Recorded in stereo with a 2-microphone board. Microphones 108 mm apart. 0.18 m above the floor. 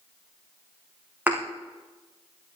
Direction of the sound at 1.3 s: 15° right (ahead or behind).